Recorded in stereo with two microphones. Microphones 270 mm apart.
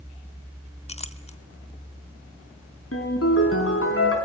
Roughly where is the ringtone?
Left.